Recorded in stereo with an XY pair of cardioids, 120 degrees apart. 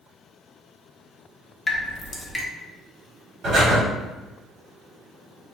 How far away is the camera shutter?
I don't hear a camera shutter.